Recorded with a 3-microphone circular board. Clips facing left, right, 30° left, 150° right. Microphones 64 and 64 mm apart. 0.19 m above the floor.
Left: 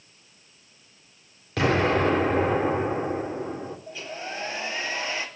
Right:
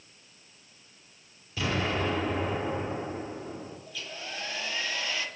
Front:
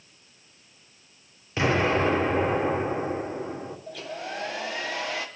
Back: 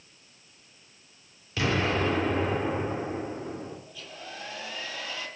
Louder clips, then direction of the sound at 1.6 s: Left 8 dB, front 4 dB; 90° left.